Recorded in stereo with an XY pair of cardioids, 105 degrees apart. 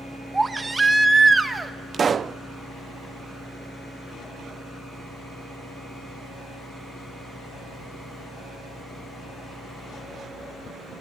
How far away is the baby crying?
About 1.4 m.